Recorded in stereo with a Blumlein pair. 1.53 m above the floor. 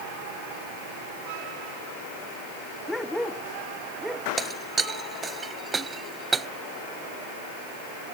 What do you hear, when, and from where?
2.9 s a dog barking: 5° left; by 4.3 s 5° right
4.4 s breaking glass: 15° right